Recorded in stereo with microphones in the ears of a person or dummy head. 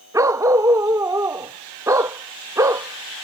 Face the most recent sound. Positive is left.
turn(degrees=-5)  # may be behind; listen again after turning